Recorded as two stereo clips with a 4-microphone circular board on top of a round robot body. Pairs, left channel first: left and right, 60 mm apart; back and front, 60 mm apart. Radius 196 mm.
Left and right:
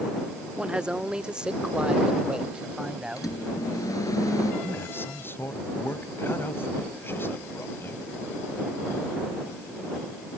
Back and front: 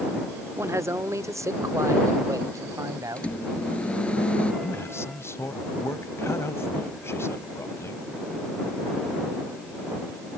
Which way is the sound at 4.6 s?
140° left.